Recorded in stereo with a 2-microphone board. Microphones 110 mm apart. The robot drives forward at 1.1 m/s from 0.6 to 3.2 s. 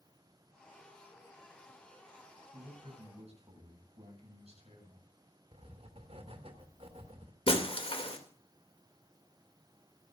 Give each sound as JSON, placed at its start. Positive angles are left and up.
{"t": 2.5, "sound": "a man speaking", "side_deg": -70, "distance_m": 8.5}
{"t": 5.5, "sound": "writing", "side_deg": -65, "distance_m": 2.5}
{"t": 7.5, "sound": "breaking glass", "side_deg": 60, "distance_m": 3.0}